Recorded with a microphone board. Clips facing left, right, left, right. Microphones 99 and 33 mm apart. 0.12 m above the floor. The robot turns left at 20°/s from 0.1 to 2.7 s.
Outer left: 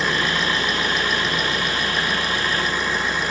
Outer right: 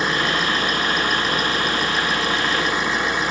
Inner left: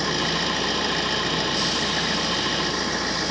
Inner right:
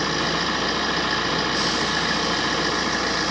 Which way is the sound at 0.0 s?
25° right.